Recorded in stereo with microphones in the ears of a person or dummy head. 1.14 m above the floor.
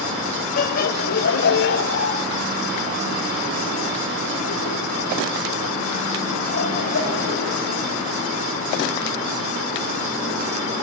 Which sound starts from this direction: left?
Laughter, at 0.6 s.